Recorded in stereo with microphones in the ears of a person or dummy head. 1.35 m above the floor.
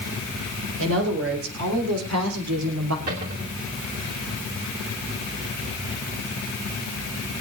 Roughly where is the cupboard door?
Right.